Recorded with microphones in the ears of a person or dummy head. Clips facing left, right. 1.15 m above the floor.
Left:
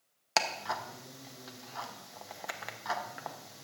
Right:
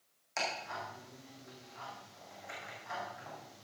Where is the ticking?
80° left, 0.9 m.